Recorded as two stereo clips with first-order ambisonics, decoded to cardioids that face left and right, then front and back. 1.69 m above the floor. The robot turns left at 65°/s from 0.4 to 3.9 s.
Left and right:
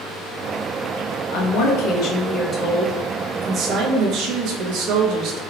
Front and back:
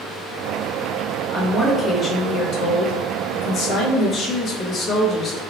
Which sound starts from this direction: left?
A woman speaking, at 1.3 s.